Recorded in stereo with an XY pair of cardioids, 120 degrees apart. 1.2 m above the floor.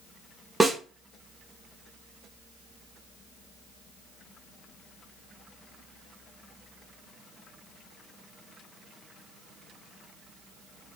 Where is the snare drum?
15° right, 1.2 m.